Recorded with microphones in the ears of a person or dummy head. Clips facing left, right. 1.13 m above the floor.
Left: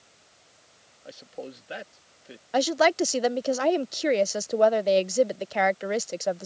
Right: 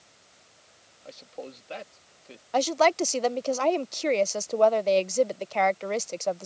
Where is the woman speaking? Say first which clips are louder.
Left 1 dB; 10° left (ahead or behind).